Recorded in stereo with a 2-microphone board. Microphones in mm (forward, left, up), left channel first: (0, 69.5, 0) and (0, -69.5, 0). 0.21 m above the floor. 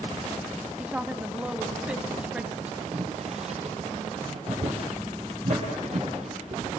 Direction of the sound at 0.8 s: 5° right (ahead or behind).